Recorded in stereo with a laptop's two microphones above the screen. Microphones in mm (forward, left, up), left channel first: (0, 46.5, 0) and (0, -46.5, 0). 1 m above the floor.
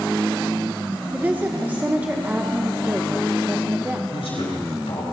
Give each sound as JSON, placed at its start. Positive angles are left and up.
{"t": 1.1, "sound": "a woman speaking", "side_deg": -15, "distance_m": 0.7}
{"t": 4.1, "sound": "a man speaking", "side_deg": 80, "distance_m": 5.5}